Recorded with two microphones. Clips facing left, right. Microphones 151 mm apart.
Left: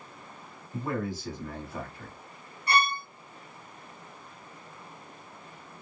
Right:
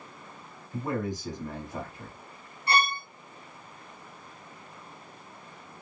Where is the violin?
30° right (ahead or behind), 1.0 m.